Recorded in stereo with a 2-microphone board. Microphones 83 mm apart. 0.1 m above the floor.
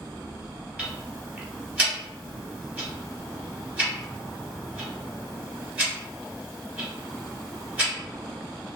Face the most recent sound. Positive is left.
turn(degrees=-15)  # may be behind; listen again after turning